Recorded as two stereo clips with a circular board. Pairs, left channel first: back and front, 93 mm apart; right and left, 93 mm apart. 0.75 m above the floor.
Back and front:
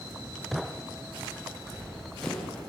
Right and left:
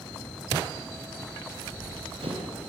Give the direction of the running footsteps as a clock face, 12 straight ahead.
9 o'clock.